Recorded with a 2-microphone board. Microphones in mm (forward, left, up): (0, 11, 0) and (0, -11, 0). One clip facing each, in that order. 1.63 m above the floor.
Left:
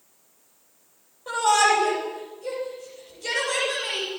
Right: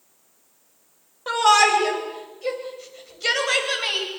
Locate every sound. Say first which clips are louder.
1.3 s a shout: right 3 dB; 50° right (ahead or behind), 9.5 m; by 4.1 s 55° right (ahead or behind), 11.5 m